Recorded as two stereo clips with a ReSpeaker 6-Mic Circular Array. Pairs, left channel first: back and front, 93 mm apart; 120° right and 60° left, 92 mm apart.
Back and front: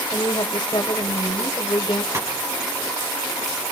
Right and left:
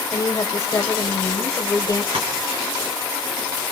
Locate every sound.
0.1 s a woman speaking: 160° right, 1.9 m
2.1 s tapping: 60° left, 5.5 m